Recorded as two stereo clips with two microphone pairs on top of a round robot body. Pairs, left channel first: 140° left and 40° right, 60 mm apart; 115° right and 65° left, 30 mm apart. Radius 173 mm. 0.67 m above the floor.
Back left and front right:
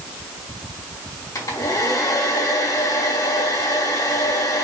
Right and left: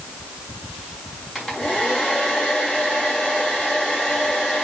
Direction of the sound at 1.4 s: 165° left.